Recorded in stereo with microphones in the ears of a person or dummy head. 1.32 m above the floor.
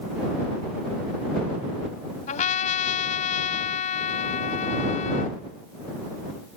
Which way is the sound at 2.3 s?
45° left (ahead or behind).